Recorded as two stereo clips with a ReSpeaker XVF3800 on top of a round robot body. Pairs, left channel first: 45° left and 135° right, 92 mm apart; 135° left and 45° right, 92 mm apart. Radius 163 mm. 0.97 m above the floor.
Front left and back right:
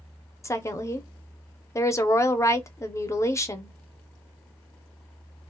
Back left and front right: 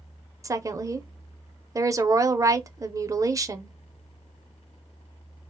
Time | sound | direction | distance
0.4 | a woman speaking | 5° right | 0.8 m